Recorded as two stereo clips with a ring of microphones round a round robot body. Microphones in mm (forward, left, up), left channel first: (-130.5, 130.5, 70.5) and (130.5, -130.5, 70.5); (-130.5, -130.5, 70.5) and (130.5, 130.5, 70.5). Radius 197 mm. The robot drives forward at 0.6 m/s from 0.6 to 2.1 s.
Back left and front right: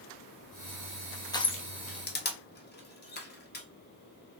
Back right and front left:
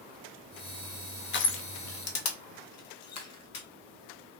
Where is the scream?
I don't hear a scream.